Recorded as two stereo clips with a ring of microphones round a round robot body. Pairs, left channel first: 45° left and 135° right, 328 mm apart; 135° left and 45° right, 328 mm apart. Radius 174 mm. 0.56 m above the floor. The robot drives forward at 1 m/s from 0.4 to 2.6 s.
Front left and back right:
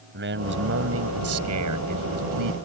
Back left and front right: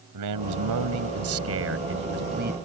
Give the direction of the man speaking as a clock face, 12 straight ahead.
3 o'clock.